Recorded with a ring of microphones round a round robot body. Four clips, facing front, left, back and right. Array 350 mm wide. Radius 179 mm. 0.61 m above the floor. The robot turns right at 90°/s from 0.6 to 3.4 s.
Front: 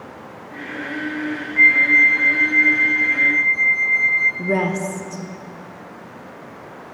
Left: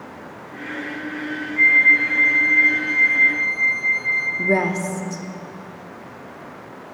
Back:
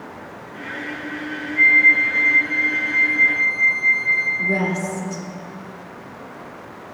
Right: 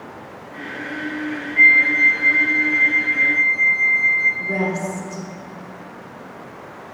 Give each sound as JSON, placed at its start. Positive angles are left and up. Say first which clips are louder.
{"t": 1.6, "sound": "a flute", "louder": "right 1 dB, front 1 dB", "azimuth_deg": -30, "distance_m": 2.5}
{"t": 4.4, "sound": "a woman speaking", "louder": "left 3 dB, front 3 dB", "azimuth_deg": 55, "distance_m": 1.0}